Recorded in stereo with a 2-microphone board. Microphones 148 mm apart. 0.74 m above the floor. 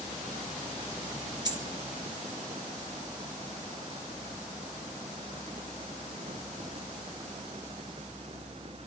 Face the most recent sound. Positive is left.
turn(degrees=-30)  # may be behind; listen again after turning